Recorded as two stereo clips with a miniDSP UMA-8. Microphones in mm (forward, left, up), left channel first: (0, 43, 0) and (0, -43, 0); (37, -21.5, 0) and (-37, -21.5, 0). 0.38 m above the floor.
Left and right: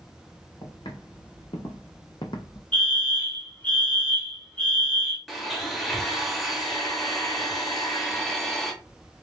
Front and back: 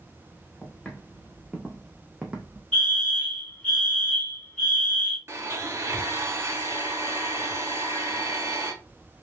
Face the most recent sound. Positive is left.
turn(degrees=180)